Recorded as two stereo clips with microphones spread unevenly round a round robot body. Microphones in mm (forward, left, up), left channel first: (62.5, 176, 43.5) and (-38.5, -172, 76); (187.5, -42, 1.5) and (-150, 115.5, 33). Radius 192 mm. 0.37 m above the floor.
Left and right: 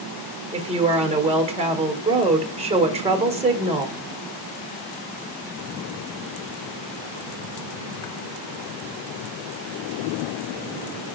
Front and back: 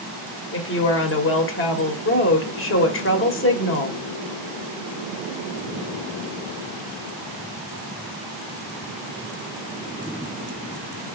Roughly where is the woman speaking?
Ahead right.